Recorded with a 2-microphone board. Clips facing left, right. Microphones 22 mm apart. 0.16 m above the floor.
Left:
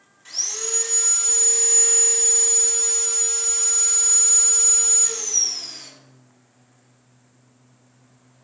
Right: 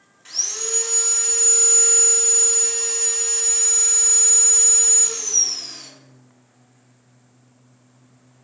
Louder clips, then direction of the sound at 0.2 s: Right 1 dB; 20° right (ahead or behind).